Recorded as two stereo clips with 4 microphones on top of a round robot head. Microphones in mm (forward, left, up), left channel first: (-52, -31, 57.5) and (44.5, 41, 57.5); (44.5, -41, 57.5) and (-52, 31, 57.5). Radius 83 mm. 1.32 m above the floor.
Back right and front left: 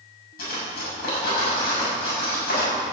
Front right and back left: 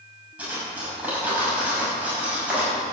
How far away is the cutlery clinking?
About 6.5 m.